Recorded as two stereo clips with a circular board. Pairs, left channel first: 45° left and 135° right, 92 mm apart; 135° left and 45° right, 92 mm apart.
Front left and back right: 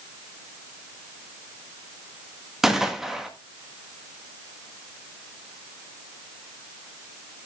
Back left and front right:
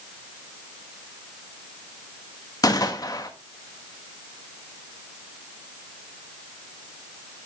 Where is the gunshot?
140° left, 1.3 m.